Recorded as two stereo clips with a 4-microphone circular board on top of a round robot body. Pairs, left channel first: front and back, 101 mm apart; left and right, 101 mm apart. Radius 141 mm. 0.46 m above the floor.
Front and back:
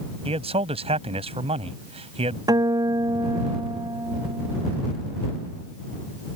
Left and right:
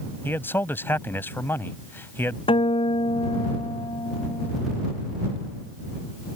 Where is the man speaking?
160° left.